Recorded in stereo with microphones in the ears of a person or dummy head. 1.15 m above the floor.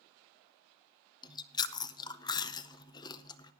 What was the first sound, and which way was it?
Chewing, 25° left (ahead or behind).